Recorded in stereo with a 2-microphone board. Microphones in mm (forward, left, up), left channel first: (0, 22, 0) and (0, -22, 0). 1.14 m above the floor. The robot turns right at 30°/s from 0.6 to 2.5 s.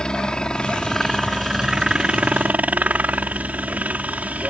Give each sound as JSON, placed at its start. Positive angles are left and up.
{"t": 0.0, "sound": "a helicopter", "azimuth_deg": 160}